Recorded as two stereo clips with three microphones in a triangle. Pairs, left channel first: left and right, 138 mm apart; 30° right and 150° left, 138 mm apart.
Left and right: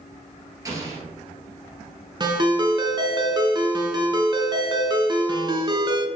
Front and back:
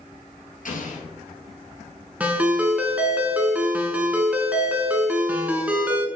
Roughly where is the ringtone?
Behind right.